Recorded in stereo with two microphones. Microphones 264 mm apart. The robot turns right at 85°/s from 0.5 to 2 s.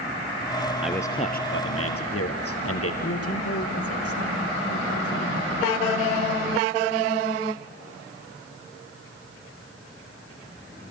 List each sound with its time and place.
0.8 s a man speaking: 5° right, 2.5 m; by 2.9 s 95° left, 2.5 m
3.0 s a man speaking: 65° left (ahead or behind), 4.5 m